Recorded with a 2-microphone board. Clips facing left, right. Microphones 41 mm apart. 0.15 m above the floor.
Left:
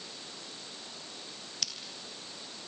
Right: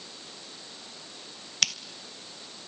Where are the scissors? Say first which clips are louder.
Right 12 dB; 80° right, 0.6 m.